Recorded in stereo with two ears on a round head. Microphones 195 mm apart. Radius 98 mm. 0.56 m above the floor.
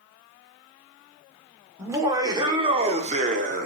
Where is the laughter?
15° right (ahead or behind), 2.0 m; by 3.7 s 40° right (ahead or behind), 1.4 m.